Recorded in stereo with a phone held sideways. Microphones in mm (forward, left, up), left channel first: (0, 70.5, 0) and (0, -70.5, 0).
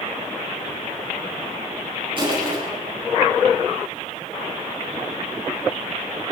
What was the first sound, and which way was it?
Crushing, 35° right (ahead or behind).